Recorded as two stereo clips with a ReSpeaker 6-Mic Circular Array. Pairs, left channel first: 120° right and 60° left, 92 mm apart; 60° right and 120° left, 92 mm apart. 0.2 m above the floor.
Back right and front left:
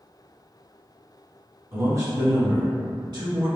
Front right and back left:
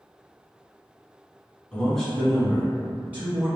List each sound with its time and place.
1.7 s a man speaking: 15° left, 1.3 m; by 3.6 s 60° left, 1.7 m